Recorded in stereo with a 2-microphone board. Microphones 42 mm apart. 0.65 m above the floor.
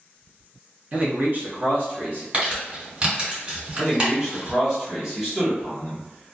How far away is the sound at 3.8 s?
About 1.3 m.